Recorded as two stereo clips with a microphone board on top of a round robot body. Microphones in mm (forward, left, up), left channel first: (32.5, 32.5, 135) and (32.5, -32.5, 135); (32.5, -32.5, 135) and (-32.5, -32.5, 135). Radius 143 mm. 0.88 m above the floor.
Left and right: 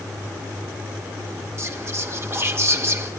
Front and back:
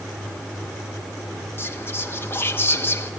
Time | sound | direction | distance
1.6 | whispering | 50° right | 1.9 m